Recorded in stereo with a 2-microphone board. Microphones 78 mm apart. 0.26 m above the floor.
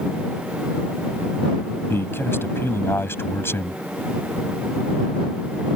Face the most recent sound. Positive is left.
turn(degrees=35)  # may be behind; listen again after turning